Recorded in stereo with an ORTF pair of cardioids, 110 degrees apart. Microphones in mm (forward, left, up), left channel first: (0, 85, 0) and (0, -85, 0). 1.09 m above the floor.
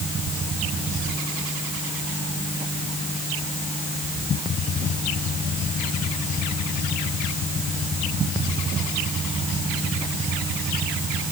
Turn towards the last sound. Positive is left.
No sound to turn to.